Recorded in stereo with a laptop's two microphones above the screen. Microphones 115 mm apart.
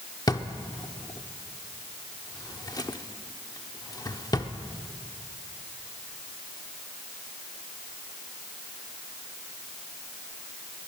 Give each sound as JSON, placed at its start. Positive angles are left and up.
{"t": 0.3, "sound": "a drawer", "side_deg": 35, "distance_m": 0.8}